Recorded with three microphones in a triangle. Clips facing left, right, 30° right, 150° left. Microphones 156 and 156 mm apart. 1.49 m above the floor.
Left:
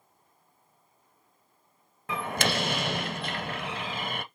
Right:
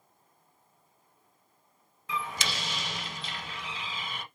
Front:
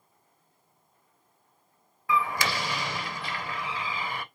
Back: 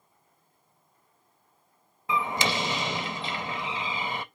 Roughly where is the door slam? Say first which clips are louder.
Left 6 dB, even; left.